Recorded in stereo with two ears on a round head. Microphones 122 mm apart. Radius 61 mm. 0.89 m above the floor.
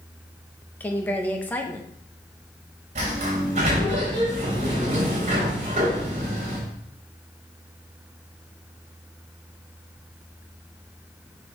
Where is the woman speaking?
15° left (ahead or behind), 0.9 m.